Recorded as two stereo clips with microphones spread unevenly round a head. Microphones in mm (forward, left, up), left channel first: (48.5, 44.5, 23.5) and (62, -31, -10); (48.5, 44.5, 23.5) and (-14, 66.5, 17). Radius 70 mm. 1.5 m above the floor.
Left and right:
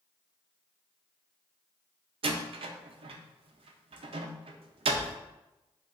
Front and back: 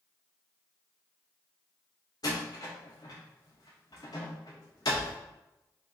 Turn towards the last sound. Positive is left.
turn(degrees=-70)